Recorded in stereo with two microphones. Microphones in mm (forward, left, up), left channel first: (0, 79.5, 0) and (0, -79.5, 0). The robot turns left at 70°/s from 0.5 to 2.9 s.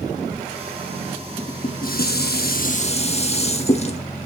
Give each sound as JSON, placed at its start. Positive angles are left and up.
{"t": 1.4, "sound": "dishes clattering", "azimuth_deg": 150, "distance_m": 0.8}